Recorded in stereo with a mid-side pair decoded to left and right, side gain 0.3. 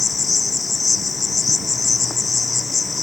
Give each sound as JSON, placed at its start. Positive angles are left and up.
{"t": 0.0, "sound": "an insect", "azimuth_deg": 45}